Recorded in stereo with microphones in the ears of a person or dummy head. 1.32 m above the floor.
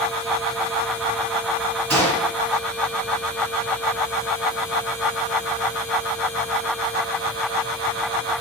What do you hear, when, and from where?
1.9 s a gunshot: 10° left (ahead or behind), 2.5 m